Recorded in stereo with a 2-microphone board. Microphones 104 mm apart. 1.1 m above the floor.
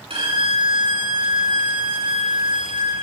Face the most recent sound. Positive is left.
turn(degrees=-65)  # may be behind; listen again after turning